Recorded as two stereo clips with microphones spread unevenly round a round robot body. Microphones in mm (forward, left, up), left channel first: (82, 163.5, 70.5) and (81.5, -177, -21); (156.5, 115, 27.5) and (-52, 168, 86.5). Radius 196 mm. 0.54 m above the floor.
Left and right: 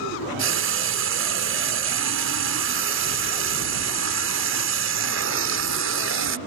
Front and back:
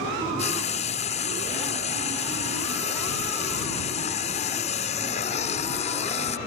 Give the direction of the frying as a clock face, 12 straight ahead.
2 o'clock.